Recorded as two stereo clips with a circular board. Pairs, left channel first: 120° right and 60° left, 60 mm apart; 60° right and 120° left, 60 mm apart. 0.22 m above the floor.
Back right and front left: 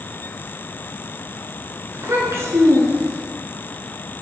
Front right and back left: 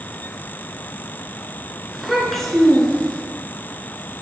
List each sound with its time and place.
1.9 s a child speaking: 30° left, 2.0 m; by 3.2 s 15° left, 2.5 m